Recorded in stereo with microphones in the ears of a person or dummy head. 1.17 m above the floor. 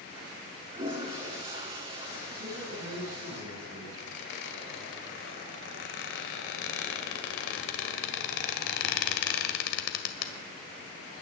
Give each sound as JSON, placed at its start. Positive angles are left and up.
{"t": 0.7, "sound": "a toilet flushing", "side_deg": -30, "distance_m": 3.5}
{"t": 2.4, "sound": "a man speaking", "side_deg": -70, "distance_m": 6.5}
{"t": 4.0, "sound": "a squeak", "side_deg": 65, "distance_m": 1.8}